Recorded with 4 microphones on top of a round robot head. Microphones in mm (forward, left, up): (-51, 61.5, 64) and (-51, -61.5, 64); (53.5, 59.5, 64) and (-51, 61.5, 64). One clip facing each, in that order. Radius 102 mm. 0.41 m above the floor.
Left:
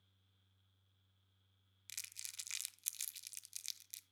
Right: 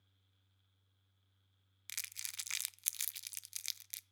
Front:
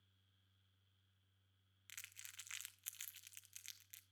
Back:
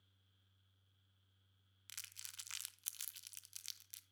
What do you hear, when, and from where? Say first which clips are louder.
1.9 s crumpling: right 7 dB, even; 115° right, 0.6 m